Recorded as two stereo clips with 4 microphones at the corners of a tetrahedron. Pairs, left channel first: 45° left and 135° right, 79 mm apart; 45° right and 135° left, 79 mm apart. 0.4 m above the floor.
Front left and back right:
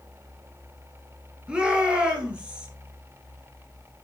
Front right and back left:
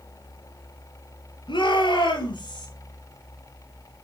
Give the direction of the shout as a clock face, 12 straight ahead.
2 o'clock.